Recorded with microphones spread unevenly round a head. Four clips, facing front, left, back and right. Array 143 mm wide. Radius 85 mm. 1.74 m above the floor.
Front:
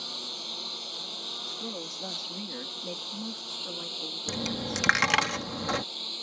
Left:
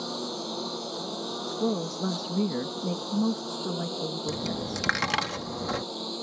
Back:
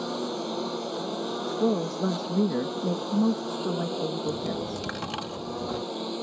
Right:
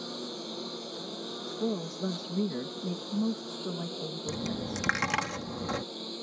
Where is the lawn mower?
155° left.